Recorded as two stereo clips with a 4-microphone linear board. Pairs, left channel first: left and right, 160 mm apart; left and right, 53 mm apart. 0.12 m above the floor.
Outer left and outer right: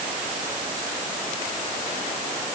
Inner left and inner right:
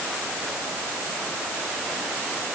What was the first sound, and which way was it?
Only background noise.